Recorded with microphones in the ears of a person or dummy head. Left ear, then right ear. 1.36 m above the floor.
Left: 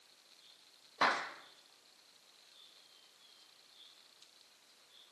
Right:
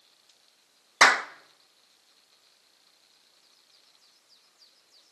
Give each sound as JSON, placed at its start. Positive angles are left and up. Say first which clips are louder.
{"t": 1.0, "sound": "a clap", "louder": "right 13 dB", "side_deg": -70, "distance_m": 1.2}